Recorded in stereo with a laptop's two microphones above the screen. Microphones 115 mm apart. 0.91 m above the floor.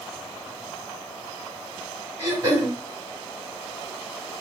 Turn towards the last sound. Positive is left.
turn(degrees=-40)  # may be behind; listen again after turning